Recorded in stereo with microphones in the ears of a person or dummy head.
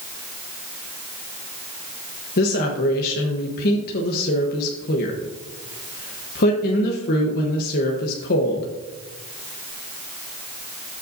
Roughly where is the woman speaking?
Left.